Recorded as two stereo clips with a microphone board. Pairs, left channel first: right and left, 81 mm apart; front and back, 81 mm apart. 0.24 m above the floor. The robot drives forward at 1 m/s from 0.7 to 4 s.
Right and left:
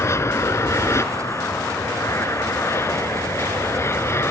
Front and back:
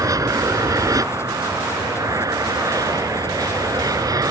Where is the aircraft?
140° right; by 4.3 s 145° right.